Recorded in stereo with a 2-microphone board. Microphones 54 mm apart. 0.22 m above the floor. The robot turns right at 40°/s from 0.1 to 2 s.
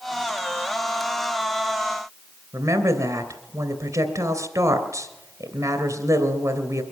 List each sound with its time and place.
2.5 s a woman speaking: 70° right (ahead or behind), 2.5 m